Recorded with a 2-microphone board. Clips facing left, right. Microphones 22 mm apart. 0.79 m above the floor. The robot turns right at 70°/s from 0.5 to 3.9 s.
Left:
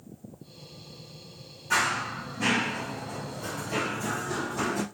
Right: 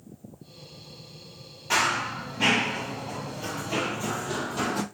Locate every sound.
1.7 s running footsteps: 50° right (ahead or behind), 1.3 m; by 4.8 s 45° right (ahead or behind), 1.6 m